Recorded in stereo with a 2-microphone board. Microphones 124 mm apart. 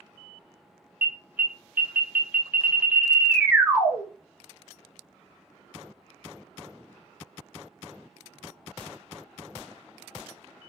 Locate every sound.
1.0 s an alarm: 15° right (ahead or behind), 1.3 m